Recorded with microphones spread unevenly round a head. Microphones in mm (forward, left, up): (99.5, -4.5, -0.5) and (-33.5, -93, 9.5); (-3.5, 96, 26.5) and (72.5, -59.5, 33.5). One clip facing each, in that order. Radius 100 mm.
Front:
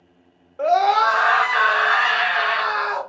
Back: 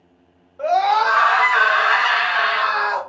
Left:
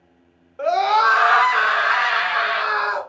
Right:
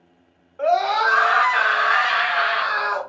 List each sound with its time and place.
0.6 s a scream: 75° left, 1.2 m; by 3.0 s 160° left, 2.5 m